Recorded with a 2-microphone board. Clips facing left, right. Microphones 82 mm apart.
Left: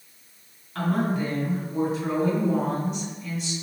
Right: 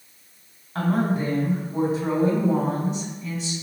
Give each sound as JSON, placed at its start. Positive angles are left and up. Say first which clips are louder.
{"t": 0.8, "sound": "a woman speaking", "louder": "right 2 dB", "side_deg": -40, "distance_m": 1.8}